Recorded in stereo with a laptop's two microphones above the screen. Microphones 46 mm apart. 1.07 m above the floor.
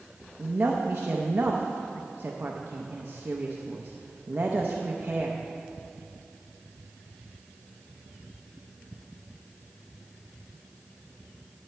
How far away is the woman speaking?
About 0.6 m.